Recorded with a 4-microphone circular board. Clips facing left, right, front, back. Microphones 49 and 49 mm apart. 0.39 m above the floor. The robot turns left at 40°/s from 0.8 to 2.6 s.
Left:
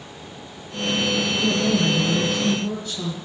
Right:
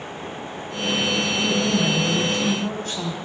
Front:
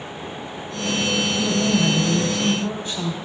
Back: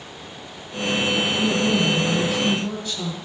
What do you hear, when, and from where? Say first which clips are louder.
1.4 s a woman speaking: left 1 dB, front 1 dB; 5° right, 3 m; by 3.1 s 55° right, 3 m